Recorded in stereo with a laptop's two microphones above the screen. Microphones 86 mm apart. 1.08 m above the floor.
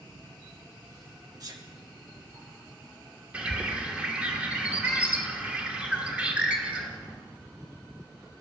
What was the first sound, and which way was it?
A sneeze, 45° right (ahead or behind).